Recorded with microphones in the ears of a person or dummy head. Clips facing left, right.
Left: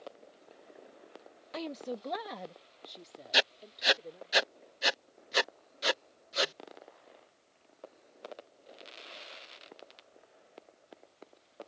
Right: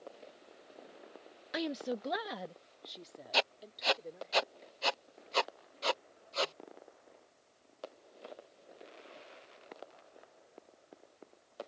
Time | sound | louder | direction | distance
1.5 | a woman speaking | right 2 dB | 20° right (ahead or behind) | ?
3.3 | writing | left 1 dB | 20° left (ahead or behind) | ?